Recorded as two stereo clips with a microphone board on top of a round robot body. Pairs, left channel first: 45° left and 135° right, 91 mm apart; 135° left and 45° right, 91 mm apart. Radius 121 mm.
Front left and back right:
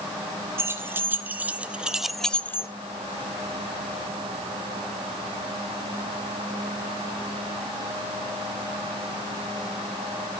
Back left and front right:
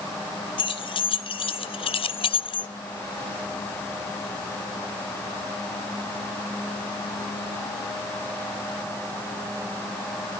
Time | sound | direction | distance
0.6 | keys jangling | 160° left | 1.6 m